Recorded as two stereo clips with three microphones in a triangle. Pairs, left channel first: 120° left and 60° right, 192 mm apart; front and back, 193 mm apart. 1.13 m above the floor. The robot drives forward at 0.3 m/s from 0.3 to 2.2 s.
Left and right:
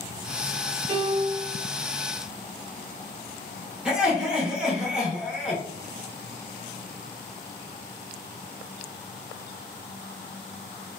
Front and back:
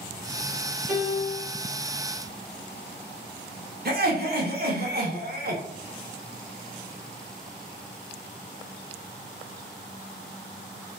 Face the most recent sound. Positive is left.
turn(degrees=-145)